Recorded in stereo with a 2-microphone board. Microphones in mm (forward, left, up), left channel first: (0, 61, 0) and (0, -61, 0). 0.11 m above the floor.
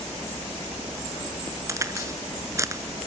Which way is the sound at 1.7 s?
25° right (ahead or behind).